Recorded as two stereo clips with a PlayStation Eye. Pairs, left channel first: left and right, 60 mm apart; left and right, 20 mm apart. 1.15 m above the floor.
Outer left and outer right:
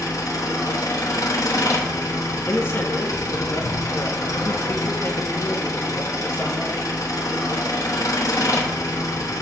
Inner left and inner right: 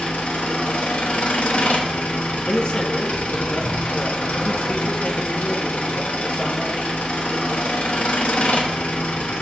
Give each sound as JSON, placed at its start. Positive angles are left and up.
{"t": 0.0, "sound": "an engine running", "side_deg": 85, "distance_m": 1.1}
{"t": 2.5, "sound": "a man speaking", "side_deg": 40, "distance_m": 0.9}